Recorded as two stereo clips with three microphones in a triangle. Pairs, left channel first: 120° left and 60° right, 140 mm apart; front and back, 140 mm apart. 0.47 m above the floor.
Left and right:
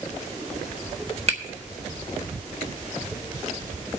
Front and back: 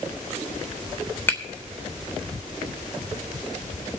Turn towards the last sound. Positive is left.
turn(degrees=-70)